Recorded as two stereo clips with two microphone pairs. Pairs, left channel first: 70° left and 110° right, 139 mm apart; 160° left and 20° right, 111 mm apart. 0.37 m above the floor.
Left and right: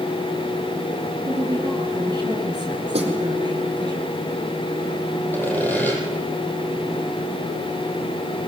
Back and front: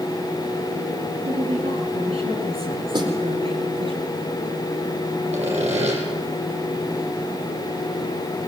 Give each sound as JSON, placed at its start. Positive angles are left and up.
{"t": 1.2, "sound": "a woman speaking", "azimuth_deg": -50, "distance_m": 9.0}
{"t": 2.9, "sound": "a snare drum", "azimuth_deg": -65, "distance_m": 4.0}
{"t": 5.3, "sound": "sawing", "azimuth_deg": -5, "distance_m": 8.5}